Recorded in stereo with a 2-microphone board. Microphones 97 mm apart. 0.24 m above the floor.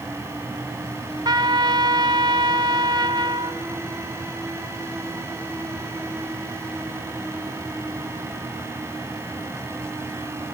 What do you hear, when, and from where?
1.2 s a trumpet: 45° right (ahead or behind), 1.1 m